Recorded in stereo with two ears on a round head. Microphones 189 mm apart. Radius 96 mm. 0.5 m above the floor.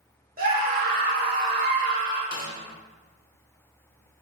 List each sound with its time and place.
0.4 s a scream: 40° right (ahead or behind), 1.6 m
2.3 s a snare drum: 40° left (ahead or behind), 0.7 m